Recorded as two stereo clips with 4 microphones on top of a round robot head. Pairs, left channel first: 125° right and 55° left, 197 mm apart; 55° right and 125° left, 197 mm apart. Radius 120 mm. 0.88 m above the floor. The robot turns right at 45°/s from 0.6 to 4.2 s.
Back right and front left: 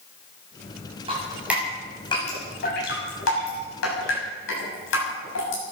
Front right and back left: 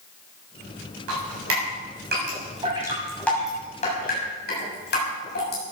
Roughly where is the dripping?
Behind left.